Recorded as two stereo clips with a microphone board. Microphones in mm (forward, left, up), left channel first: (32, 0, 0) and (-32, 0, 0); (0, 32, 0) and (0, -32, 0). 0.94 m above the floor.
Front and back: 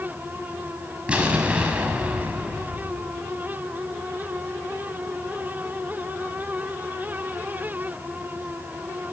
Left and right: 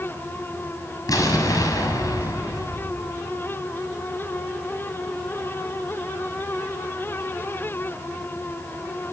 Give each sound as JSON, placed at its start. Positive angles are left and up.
{"t": 1.1, "sound": "an explosion", "azimuth_deg": 110, "distance_m": 6.5}